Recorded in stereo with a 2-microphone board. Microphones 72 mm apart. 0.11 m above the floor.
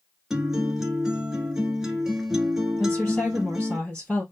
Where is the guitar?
10° right (ahead or behind), 1.2 m.